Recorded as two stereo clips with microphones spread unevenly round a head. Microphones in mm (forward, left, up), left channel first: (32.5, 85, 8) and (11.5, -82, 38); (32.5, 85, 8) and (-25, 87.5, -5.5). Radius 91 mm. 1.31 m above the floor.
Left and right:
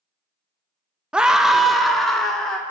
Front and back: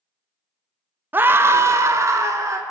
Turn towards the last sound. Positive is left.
turn(degrees=165)